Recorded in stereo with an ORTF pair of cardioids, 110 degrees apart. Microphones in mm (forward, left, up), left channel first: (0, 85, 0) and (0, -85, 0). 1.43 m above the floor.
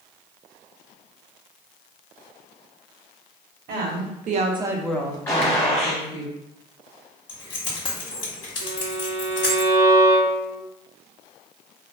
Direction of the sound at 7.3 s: 25° left.